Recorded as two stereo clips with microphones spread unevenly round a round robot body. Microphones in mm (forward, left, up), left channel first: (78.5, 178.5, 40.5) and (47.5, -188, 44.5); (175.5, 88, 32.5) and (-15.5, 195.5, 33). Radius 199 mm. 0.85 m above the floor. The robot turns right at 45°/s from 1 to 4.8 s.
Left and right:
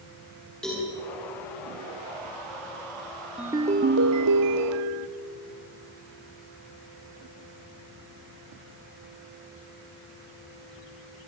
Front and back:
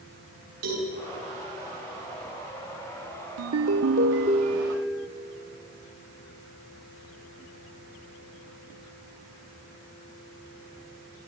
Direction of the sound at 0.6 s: 175° left.